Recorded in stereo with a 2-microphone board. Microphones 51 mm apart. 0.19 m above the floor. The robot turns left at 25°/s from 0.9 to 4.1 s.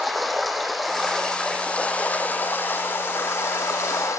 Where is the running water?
Straight behind, 1.1 m; by 4.2 s 100° left, 1.1 m.